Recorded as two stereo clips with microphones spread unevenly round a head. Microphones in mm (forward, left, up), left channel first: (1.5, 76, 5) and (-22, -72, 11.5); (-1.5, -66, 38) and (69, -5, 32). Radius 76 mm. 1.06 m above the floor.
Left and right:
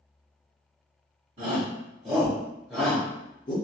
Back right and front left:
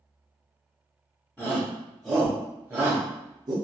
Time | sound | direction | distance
1.4 | a shout | 65° right | 1.4 m